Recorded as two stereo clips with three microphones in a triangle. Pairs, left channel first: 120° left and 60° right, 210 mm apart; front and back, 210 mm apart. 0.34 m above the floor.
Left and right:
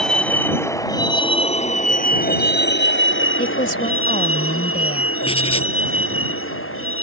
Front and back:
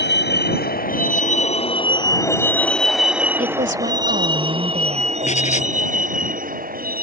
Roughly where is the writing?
Ahead left.